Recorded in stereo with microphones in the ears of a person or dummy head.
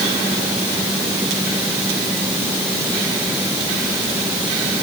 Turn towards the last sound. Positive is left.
No sound to turn to.